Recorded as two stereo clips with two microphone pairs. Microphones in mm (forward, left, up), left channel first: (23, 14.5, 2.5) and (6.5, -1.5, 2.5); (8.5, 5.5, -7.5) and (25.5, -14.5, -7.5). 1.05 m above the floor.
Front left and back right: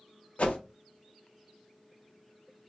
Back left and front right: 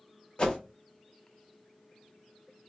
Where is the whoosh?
80° left, 0.8 m.